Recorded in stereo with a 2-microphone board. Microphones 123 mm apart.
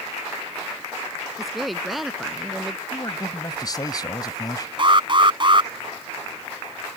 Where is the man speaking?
35° left (ahead or behind).